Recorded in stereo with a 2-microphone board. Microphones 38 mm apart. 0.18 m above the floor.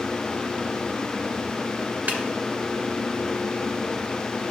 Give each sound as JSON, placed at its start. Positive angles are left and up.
{"t": 2.1, "sound": "a snare drum", "side_deg": -60, "distance_m": 1.2}